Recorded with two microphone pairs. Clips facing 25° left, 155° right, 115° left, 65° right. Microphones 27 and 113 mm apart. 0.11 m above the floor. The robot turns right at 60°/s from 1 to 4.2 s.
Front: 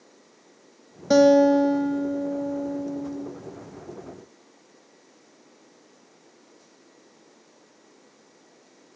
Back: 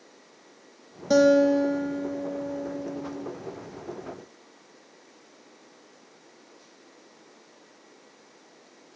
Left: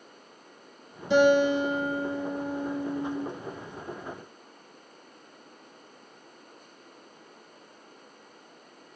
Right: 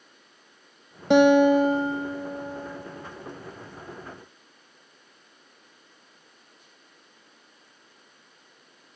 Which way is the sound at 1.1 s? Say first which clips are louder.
Front 3 dB, right 4 dB; 50° right.